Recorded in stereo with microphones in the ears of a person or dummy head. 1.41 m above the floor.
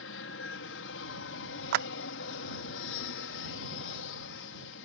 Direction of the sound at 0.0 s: 65° left (ahead or behind).